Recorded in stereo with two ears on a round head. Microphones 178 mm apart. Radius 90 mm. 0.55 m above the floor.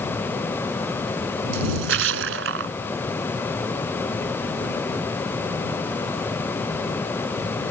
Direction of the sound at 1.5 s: 65° right (ahead or behind).